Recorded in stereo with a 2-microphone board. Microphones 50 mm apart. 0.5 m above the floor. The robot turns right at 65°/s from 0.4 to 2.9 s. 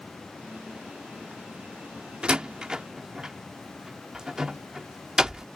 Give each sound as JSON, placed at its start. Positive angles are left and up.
{"t": 2.2, "sound": "a door slam", "side_deg": -20}